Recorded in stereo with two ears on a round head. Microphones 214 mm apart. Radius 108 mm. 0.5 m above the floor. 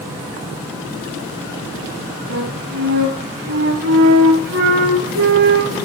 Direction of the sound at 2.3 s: 55° right (ahead or behind).